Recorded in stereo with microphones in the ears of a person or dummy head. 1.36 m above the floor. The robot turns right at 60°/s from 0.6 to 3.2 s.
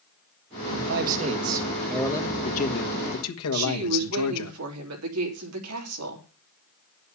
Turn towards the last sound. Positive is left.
turn(degrees=-85)